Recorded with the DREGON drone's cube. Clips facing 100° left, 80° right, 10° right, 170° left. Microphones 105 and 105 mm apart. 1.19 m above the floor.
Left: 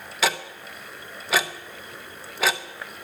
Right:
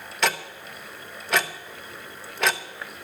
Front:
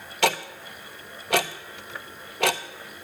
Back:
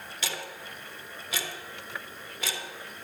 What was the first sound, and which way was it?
Ticking, 15° left.